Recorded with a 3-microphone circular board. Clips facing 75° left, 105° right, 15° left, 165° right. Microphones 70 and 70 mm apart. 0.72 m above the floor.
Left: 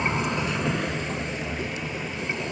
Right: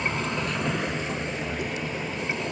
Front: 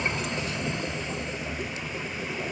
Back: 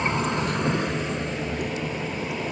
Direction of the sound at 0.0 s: 145° left.